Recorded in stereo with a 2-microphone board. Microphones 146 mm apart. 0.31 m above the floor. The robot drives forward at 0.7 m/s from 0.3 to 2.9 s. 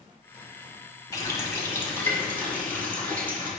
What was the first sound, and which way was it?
A running tap, 25° left (ahead or behind).